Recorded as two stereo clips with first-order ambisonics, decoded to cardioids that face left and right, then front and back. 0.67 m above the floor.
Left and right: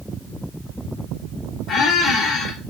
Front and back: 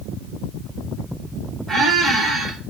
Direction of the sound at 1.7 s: 115° left.